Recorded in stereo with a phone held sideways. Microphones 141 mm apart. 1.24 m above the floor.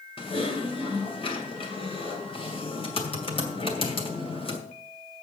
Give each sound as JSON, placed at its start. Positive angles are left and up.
{"t": 0.2, "sound": "typing on a keyboard", "side_deg": 40, "distance_m": 2.5}